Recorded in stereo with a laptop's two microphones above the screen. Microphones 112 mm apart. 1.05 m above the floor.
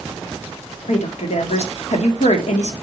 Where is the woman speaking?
85° left, 1.9 m.